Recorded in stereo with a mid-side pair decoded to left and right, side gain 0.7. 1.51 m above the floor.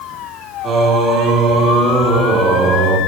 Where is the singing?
45° right, 3 m.